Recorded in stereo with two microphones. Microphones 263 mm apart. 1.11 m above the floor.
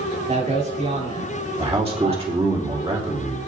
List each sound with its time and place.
0.3 s a man speaking: 25° right (ahead or behind), 3.5 m
1.6 s a man speaking: 25° right (ahead or behind), 2.5 m